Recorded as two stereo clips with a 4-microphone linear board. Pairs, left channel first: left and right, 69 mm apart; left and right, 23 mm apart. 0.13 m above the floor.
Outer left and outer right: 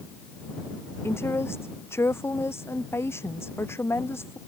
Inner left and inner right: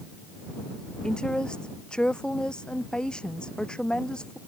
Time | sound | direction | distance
1.0 | a woman speaking | 35° left (ahead or behind) | ?